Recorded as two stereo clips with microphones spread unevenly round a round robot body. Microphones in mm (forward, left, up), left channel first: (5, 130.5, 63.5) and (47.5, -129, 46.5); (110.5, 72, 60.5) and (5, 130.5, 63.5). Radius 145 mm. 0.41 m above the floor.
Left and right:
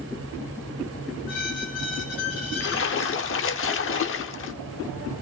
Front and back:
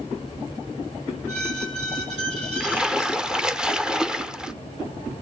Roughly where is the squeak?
Behind left.